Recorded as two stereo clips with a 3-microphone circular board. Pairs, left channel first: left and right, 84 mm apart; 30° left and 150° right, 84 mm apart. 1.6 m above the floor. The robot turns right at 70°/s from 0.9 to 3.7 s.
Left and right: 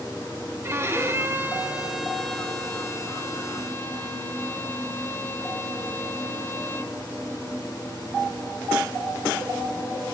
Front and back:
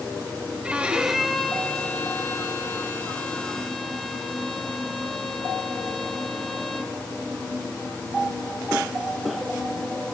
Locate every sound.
0.6 s a violin: 85° right, 0.6 m; by 6.9 s 115° left, 0.6 m